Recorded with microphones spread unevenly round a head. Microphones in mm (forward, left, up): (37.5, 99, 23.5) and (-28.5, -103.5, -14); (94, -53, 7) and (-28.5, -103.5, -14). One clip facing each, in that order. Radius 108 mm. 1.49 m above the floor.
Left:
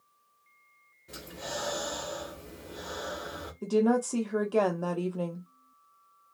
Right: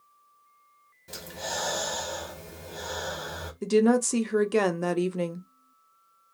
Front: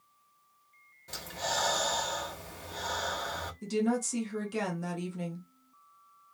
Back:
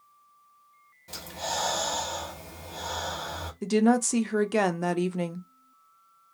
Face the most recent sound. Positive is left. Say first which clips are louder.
# right 4 dB, back 8 dB
turn(degrees=-160)